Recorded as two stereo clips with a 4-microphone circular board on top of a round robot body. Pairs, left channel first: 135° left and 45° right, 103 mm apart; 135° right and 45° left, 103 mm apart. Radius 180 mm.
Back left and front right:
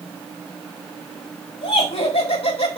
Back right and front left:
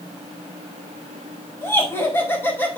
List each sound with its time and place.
1.6 s laughter: 160° left, 6 m; by 2.8 s 155° left, 4.5 m